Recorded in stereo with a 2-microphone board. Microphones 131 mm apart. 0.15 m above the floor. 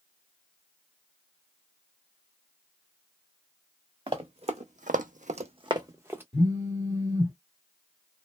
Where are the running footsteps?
40° right (ahead or behind), 1.0 m; by 6.2 s 15° right (ahead or behind), 0.9 m.